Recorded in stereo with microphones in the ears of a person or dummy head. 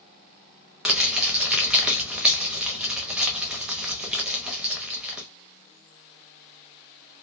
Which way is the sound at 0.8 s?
5° right (ahead or behind).